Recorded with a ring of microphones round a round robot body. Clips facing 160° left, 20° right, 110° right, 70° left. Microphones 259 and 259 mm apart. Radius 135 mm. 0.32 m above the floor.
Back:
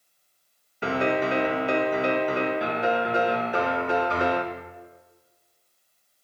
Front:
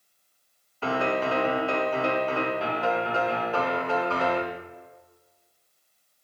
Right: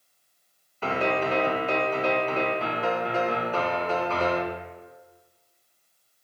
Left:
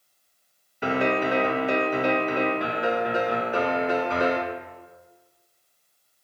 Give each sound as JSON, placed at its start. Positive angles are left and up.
{"t": 0.8, "sound": "a piano", "azimuth_deg": 120, "distance_m": 0.7}